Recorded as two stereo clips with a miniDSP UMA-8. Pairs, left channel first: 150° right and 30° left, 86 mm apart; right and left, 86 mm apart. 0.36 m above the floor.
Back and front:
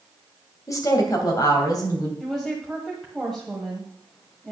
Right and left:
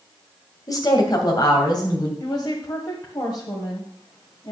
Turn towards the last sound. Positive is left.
turn(degrees=-65)